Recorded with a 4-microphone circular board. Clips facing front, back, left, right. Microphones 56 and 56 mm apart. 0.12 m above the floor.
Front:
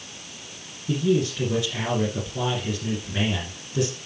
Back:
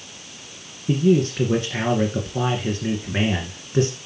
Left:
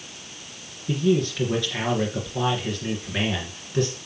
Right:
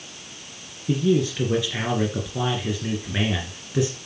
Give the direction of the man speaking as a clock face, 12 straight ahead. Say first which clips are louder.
Back 4 dB, right 1 dB; 5 o'clock.